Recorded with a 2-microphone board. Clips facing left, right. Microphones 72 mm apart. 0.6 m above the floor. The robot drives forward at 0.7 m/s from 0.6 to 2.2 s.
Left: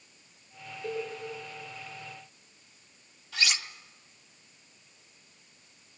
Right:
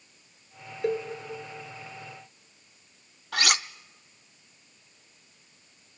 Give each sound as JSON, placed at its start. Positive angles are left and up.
{"t": 0.8, "sound": "a cowbell", "side_deg": -85, "distance_m": 5.5}
{"t": 3.3, "sound": "cutlery clinking", "side_deg": -65, "distance_m": 0.6}